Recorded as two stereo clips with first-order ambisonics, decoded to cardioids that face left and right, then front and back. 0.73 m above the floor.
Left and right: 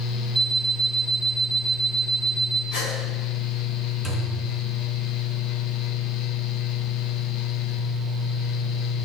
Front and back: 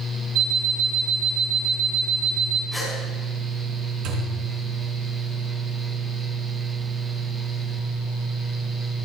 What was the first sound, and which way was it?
An alarm clock, 170° left.